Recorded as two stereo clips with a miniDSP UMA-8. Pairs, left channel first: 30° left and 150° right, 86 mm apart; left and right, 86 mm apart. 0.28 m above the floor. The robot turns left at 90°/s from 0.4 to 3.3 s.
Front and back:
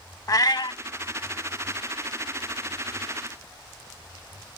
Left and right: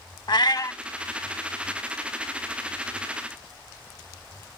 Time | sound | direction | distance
0.3 | a cat meowing | 70° left | ?